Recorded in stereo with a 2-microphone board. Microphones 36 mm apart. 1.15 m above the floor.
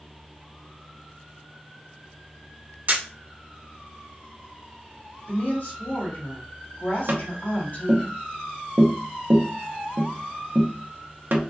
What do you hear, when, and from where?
2.9 s a camera shutter: 50° right (ahead or behind), 1.0 m
5.3 s a woman speaking: 55° left (ahead or behind), 2 m
7.1 s tapping: 60° right (ahead or behind), 0.7 m